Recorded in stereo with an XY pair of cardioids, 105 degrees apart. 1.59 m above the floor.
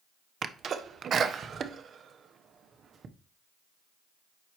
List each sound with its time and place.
0.4 s a sneeze: 50° right, 0.9 m